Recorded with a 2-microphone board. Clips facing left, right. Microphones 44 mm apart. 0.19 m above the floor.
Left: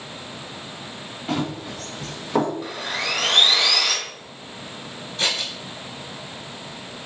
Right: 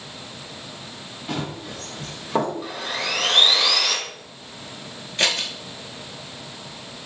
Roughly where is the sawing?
Centre.